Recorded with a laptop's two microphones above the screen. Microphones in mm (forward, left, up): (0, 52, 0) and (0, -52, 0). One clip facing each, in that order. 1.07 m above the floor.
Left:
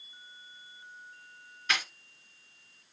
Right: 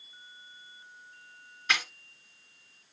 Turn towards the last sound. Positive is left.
turn(degrees=-20)  # may be behind; listen again after turning